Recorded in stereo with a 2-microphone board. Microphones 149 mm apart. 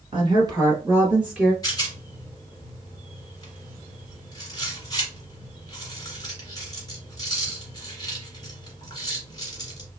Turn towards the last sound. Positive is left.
turn(degrees=25)  # may be behind; listen again after turning